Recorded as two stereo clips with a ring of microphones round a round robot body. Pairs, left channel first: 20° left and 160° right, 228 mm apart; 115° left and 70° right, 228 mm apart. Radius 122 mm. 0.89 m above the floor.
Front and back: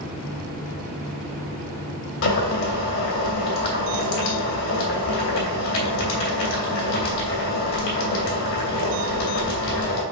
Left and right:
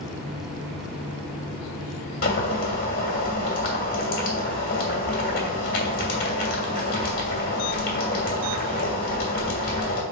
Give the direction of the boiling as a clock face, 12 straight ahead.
10 o'clock.